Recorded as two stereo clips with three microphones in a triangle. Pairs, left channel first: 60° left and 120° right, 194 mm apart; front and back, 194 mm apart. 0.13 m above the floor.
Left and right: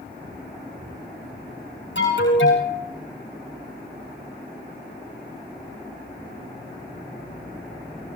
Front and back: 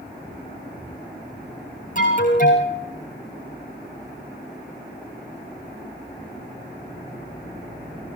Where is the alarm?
45° left, 8.5 m.